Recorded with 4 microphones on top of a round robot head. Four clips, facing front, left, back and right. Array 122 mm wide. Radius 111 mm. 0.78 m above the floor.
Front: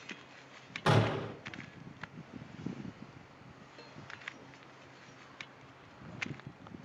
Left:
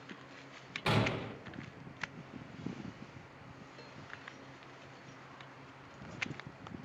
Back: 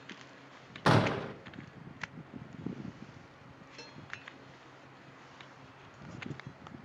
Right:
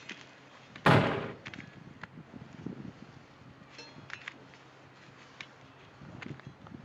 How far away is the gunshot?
About 0.5 m.